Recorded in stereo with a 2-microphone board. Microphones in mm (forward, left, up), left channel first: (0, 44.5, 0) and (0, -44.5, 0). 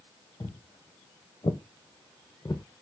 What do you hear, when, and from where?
0.4 s footsteps: 65° left (ahead or behind), 1.5 m; by 2.6 s 40° left (ahead or behind), 0.6 m